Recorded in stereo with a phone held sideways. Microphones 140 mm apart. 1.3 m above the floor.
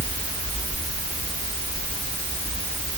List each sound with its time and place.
Only background noise.